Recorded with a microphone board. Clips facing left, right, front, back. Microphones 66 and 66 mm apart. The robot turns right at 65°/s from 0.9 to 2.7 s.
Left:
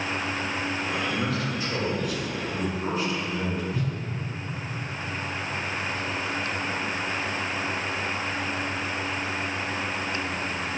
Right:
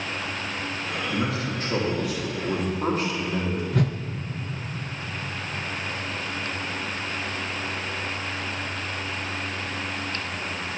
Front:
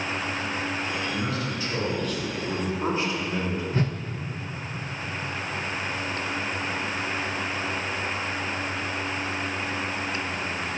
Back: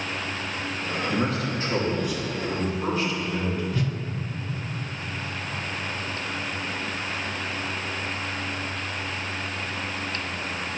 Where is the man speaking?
165° right, 2.5 m; by 3.6 s 60° right, 2.5 m.